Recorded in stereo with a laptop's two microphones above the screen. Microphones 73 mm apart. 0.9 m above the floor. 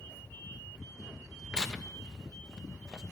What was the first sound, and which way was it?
Tearing paper, 10° left (ahead or behind).